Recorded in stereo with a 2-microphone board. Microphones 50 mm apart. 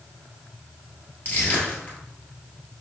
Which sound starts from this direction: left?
Crushing, at 1.2 s.